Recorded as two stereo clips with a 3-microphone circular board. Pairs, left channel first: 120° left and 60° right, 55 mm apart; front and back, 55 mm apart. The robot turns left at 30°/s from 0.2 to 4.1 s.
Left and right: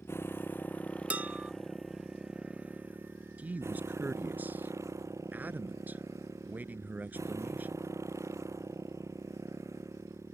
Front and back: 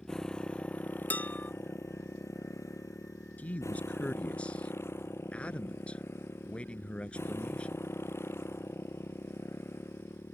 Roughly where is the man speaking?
Ahead right.